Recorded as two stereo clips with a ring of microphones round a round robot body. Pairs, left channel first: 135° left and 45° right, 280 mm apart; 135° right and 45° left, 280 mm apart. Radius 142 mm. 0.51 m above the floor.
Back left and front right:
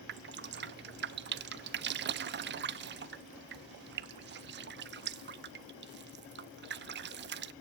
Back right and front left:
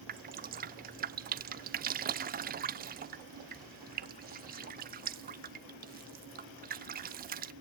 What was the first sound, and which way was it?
Dripping, 5° right.